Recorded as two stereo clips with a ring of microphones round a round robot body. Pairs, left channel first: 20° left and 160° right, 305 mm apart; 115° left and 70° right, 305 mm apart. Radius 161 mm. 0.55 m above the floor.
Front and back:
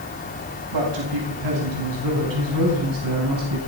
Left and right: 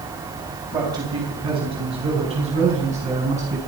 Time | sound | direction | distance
0.7 | a man speaking | 145° right | 3 m